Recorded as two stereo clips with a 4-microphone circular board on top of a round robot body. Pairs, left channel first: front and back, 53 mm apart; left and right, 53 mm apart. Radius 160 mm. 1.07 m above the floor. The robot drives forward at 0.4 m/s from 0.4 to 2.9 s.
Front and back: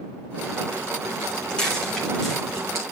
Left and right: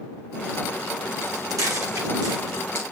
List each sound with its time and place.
1.2 s footsteps: 70° right, 3 m; by 2.8 s 90° right, 4 m